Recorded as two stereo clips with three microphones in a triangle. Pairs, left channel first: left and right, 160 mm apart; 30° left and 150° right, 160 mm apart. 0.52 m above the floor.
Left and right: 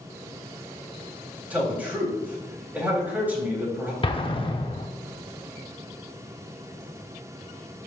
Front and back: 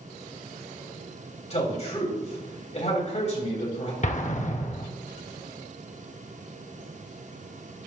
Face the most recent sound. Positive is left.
turn(degrees=45)